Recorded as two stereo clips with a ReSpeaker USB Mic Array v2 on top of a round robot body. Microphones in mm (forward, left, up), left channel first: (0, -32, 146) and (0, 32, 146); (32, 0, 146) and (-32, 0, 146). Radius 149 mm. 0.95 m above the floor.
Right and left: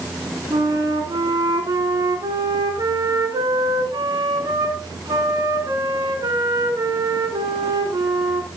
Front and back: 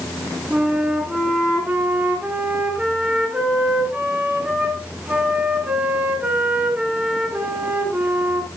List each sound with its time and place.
0.5 s a flute: 105° left, 2 m